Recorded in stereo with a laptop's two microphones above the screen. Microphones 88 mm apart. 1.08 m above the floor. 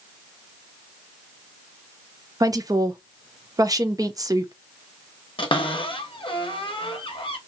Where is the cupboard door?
65° left (ahead or behind), 0.6 m.